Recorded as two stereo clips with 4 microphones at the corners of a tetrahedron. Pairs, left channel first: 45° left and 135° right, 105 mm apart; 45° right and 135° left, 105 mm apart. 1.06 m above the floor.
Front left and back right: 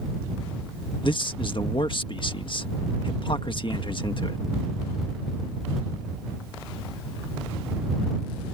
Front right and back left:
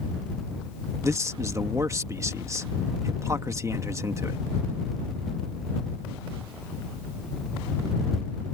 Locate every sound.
1.0 s a man speaking: 75° left